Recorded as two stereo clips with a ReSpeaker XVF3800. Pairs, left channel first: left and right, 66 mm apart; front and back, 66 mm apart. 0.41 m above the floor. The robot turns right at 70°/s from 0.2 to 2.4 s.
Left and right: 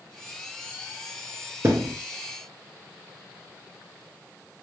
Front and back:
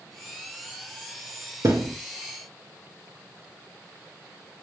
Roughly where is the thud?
Behind right.